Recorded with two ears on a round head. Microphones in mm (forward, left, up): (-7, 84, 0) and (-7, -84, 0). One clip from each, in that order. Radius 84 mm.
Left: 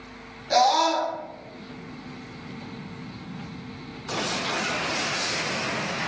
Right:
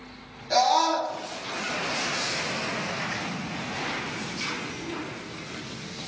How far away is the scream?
About 1.0 m.